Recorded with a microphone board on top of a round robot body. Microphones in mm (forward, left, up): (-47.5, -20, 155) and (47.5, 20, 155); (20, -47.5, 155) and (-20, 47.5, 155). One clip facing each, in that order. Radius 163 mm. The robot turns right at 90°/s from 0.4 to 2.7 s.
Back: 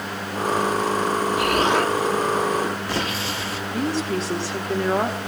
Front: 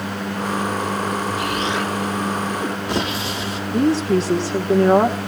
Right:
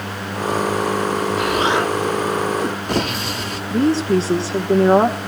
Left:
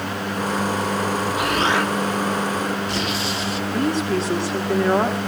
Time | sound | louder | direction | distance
1.4 | an explosion | back 3 dB, right 2 dB | 170° right | 2.5 m
3.7 | a woman speaking | front 8 dB, right 6 dB | 20° right | 1.7 m